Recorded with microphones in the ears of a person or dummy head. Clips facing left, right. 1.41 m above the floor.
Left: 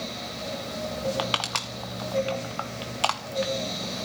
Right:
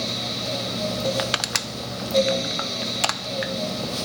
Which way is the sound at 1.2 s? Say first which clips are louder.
Right 2 dB; 25° right (ahead or behind).